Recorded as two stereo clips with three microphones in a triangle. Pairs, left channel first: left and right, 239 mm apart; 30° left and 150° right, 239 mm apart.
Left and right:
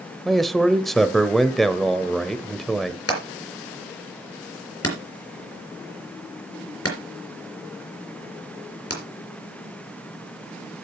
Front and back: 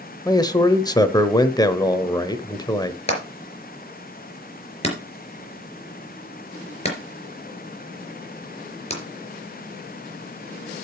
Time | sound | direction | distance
0.2 | a man speaking | straight ahead | 0.9 m
3.1 | hammering | 95° left | 3.5 m